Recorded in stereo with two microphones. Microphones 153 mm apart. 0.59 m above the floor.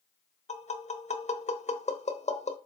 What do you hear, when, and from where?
0.5 s tapping: 50° left (ahead or behind), 0.9 m